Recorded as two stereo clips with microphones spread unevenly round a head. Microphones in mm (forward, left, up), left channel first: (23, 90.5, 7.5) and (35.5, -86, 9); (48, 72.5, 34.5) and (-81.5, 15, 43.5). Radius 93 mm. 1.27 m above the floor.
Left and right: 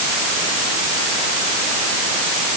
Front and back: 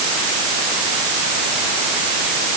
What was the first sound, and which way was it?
Only background noise.